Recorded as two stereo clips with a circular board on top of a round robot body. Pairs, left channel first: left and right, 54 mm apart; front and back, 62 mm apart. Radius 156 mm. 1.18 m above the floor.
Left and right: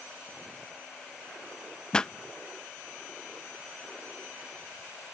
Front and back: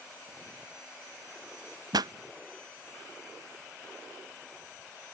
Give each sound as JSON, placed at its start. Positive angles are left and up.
{"t": 1.9, "sound": "a pop", "azimuth_deg": 165}